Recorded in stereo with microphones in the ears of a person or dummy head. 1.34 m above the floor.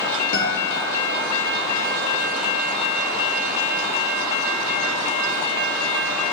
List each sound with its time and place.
0.3 s a guitar: 70° left (ahead or behind), 3 m